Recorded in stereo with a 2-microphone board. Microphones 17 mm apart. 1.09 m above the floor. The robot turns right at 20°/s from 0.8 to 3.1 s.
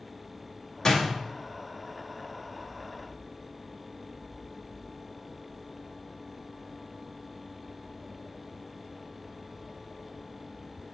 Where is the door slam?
40° left (ahead or behind), 1.6 m; by 1.1 s 45° left (ahead or behind), 1.6 m.